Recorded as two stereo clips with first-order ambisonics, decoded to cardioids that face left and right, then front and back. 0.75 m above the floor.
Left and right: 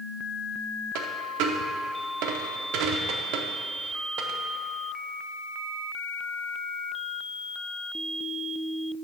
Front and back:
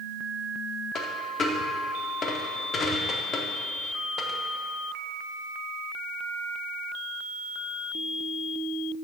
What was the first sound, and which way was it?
A dropped coin, 65° right.